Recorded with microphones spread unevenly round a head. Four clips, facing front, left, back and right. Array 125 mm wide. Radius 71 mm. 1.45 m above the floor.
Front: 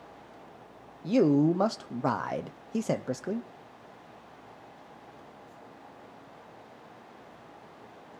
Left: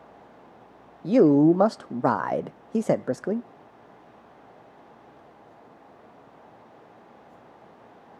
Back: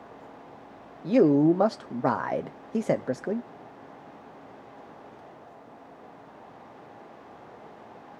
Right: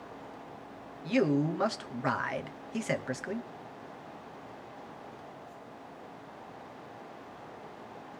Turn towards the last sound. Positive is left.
turn(degrees=115)